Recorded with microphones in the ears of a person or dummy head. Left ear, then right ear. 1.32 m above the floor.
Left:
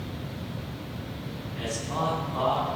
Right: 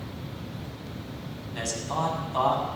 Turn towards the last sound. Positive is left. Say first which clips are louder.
# right 2 dB
turn(degrees=-75)  # may be behind; listen again after turning